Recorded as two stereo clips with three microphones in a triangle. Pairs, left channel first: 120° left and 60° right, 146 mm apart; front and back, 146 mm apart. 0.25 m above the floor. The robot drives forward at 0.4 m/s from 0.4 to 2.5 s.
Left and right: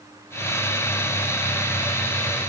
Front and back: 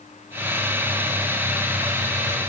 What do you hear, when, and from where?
Only background noise.